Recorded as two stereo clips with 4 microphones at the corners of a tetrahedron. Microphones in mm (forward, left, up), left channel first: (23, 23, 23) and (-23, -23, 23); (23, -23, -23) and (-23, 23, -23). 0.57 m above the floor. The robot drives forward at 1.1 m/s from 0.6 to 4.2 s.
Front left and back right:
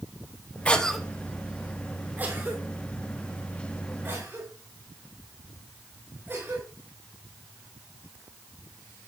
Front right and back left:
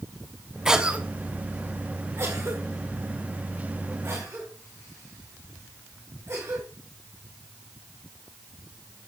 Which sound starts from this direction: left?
A cough, at 0.7 s.